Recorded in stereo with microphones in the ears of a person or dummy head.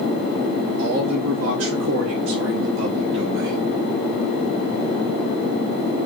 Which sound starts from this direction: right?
A man speaking, at 0.8 s.